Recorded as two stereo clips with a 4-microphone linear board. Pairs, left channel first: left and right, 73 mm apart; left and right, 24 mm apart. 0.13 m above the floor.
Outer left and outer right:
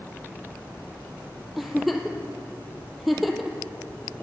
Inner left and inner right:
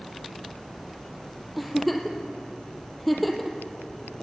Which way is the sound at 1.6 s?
Centre (ahead or behind).